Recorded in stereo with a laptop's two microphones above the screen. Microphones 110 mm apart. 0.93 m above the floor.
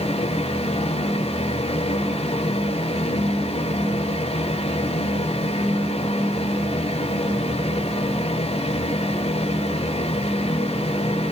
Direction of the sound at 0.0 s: 85° left.